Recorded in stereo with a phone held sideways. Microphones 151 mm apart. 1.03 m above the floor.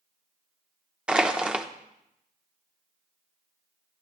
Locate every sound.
1.1 s crushing: 5° right (ahead or behind), 0.7 m